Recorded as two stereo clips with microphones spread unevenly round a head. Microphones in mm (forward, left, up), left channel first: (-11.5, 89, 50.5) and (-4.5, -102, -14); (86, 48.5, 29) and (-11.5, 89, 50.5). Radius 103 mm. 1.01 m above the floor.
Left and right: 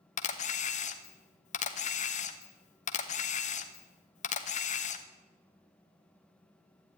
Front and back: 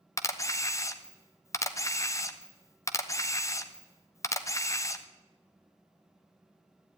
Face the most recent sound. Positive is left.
turn(degrees=30)